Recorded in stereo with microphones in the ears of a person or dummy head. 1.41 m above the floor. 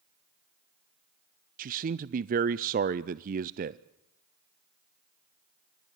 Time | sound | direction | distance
1.6 | a man speaking | 40° right (ahead or behind) | 0.5 m